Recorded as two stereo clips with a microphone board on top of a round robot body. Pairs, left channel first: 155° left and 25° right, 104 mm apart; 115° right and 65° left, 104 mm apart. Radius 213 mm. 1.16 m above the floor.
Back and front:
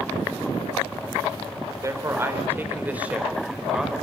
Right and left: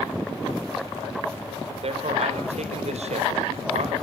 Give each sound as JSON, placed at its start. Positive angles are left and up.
{"t": 1.8, "sound": "a man speaking", "azimuth_deg": 40, "distance_m": 4.0}